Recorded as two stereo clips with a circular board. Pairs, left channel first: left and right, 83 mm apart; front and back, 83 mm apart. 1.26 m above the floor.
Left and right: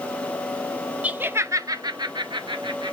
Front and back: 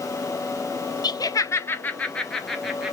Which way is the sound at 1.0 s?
20° right.